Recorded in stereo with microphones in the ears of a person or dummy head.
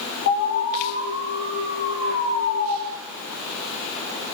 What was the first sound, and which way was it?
An alarm, 60° left (ahead or behind).